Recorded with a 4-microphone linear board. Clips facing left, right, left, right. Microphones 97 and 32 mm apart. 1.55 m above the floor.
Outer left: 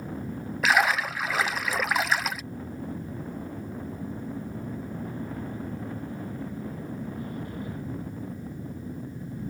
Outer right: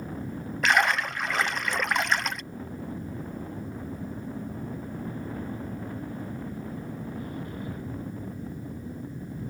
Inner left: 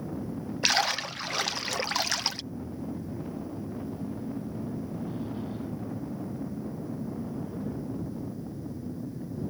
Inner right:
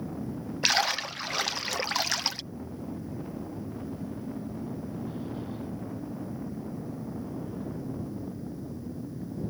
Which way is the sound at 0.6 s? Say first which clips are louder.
Even, even; 5° left (ahead or behind).